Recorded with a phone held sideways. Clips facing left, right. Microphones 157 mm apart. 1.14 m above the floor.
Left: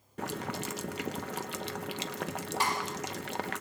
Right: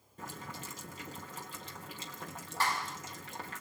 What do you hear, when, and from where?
0.2 s boiling: 80° left, 0.7 m
2.6 s a clap: 20° left (ahead or behind), 6 m